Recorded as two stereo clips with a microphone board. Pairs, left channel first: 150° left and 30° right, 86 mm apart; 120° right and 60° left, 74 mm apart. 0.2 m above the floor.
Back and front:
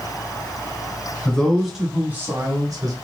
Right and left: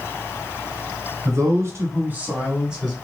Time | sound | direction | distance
1.2 | a man speaking | 75° left | 1.3 m